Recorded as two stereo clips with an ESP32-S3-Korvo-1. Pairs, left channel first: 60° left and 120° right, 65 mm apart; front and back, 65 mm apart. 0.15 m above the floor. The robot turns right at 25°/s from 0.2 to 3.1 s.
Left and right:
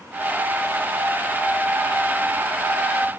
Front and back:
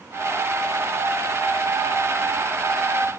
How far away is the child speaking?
I don't hear a child speaking.